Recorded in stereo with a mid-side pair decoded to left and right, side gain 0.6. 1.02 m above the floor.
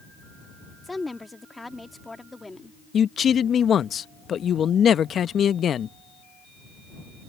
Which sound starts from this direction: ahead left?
A man speaking, at 2.9 s.